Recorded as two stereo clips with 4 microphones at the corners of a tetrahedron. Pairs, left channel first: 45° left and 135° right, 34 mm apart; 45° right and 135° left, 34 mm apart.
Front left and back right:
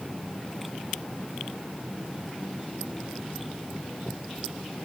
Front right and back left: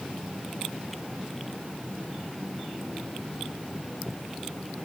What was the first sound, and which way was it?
Only background noise.